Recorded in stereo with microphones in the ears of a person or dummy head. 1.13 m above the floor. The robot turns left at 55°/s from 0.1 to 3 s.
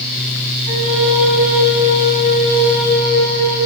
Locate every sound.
0.7 s a flute: 70° right, 8.5 m; by 3.6 s 160° left, 8.5 m